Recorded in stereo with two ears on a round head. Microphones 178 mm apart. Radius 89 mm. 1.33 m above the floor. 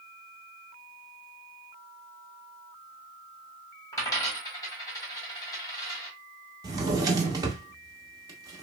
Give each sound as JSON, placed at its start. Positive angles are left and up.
{"t": 3.9, "sound": "a dropped coin", "side_deg": 15, "distance_m": 1.2}
{"t": 6.6, "sound": "a drawer", "side_deg": -20, "distance_m": 0.7}